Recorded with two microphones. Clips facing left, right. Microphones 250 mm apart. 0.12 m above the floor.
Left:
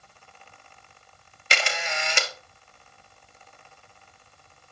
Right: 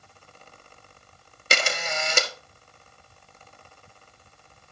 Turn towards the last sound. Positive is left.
turn(degrees=-45)  # may be behind; listen again after turning